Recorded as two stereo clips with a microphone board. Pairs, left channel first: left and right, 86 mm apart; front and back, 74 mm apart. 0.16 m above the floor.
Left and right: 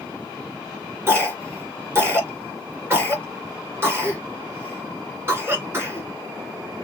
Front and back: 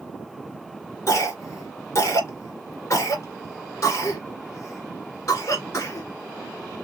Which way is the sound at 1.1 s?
35° right.